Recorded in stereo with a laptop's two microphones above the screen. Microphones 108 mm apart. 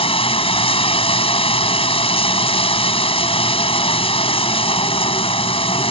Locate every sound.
0.0 s running water: 60° left (ahead or behind)